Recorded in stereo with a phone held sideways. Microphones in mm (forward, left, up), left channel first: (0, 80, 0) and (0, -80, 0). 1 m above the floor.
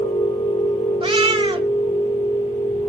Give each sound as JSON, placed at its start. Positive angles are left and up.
{"t": 0.0, "sound": "a machine running", "side_deg": 35, "distance_m": 1.3}
{"t": 1.0, "sound": "a cat meowing", "side_deg": -35, "distance_m": 1.4}